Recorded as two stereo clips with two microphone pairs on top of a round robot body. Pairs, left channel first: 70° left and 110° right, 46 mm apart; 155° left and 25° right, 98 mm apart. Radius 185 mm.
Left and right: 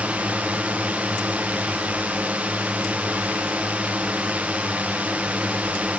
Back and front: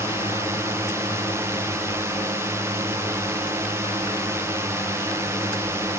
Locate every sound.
0.0 s a drone: 70° right